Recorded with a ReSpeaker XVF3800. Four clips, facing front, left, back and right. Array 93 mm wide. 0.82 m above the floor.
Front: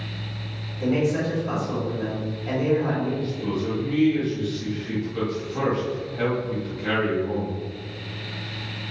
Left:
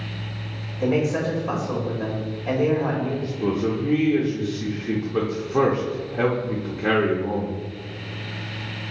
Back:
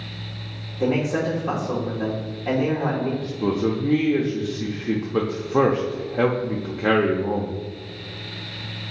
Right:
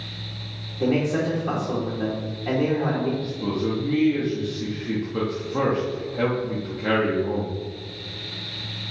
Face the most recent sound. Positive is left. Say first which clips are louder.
# left 2 dB, back 4 dB
turn(degrees=165)